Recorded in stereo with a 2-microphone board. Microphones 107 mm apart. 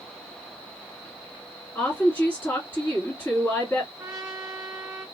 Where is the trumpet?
30° right (ahead or behind), 1.2 m.